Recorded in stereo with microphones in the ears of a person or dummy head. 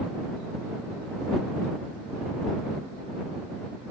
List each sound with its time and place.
Only background noise.